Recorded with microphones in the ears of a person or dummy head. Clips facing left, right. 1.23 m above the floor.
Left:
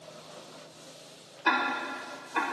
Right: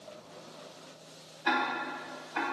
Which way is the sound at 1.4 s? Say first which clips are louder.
Left 1 dB; 60° left (ahead or behind).